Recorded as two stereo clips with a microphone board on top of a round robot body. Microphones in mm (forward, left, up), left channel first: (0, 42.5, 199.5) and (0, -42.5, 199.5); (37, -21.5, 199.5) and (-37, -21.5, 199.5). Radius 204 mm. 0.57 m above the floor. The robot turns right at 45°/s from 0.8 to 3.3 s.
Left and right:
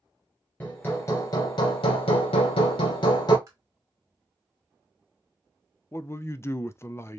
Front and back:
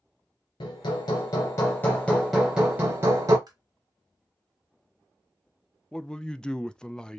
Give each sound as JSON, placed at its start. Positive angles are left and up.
{"t": 0.6, "sound": "hammering", "azimuth_deg": 20, "distance_m": 0.5}
{"t": 3.5, "sound": "tapping", "azimuth_deg": -150, "distance_m": 0.6}
{"t": 5.9, "sound": "a man speaking", "azimuth_deg": 70, "distance_m": 0.6}